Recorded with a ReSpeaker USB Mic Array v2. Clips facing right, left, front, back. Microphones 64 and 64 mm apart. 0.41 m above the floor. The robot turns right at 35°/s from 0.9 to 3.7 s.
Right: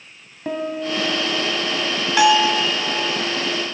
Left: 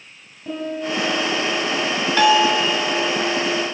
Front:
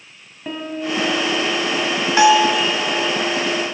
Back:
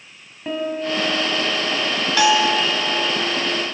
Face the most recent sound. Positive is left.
turn(degrees=30)